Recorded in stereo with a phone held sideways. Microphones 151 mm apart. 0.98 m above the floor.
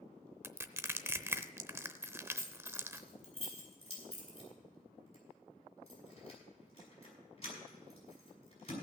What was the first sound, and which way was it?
Crushing, 15° right (ahead or behind).